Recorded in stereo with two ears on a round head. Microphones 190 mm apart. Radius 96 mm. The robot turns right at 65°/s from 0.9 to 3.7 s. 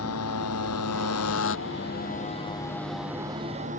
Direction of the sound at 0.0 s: 90° left.